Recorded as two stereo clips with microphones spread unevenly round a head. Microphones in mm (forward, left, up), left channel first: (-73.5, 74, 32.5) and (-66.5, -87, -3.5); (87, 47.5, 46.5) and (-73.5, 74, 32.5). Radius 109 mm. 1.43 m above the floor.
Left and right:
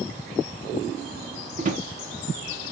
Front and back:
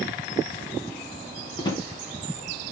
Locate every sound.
1.6 s a drawer: 55° right, 0.6 m